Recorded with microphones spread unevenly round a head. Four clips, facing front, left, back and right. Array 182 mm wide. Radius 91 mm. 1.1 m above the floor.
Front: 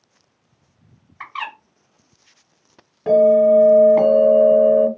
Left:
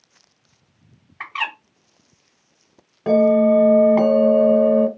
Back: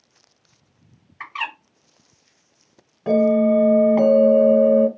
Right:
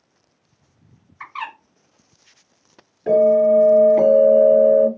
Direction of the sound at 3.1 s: 75° left.